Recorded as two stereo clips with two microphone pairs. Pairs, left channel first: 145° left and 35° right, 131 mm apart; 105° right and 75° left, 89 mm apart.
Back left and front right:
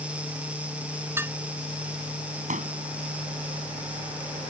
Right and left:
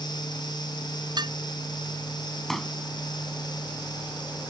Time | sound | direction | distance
1.2 | dishes clattering | 40° left | ?
2.5 | a pop | 15° right | ?